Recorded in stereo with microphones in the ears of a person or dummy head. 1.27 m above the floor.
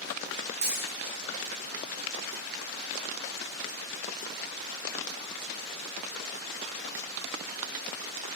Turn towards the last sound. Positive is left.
turn(degrees=-70)  # may be behind; listen again after turning